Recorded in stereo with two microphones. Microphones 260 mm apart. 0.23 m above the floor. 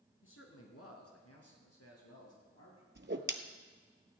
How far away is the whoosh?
About 0.9 m.